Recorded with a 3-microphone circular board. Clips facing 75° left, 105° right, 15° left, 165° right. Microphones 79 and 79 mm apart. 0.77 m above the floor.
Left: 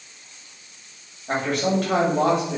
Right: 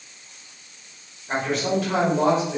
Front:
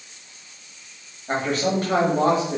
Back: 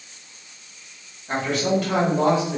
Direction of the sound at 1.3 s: 55° left.